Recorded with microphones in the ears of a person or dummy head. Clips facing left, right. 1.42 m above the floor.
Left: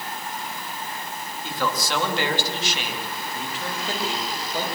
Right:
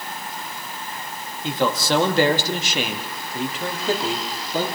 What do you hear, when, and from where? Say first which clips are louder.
1.4 s a man speaking: right 6 dB; 20° right (ahead or behind), 2.5 m; by 4.7 s 75° right (ahead or behind), 3.5 m